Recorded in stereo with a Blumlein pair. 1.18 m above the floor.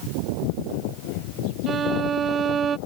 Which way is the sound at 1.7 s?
25° right.